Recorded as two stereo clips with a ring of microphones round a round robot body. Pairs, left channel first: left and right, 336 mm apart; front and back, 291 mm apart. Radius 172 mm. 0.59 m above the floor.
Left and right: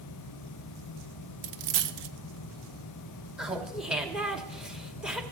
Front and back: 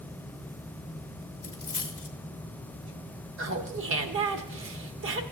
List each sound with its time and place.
1.4 s a dropped coin: 80° right, 0.7 m
3.4 s laughter: 175° right, 1.1 m